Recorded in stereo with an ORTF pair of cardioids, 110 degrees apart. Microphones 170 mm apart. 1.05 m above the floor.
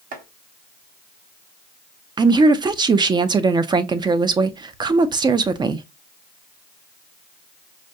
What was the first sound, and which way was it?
Chopping, 55° right.